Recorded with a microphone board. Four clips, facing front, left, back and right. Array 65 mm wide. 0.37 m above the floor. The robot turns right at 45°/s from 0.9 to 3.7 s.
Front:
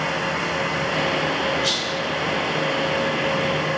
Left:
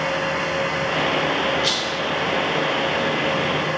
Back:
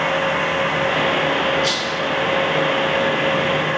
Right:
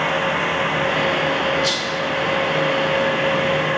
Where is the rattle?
80° left, 1.0 m; by 2.0 s 95° left, 1.0 m.